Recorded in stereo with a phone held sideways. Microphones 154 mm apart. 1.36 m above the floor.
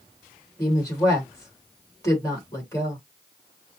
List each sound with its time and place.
0.6 s a woman speaking: 20° left (ahead or behind), 2 m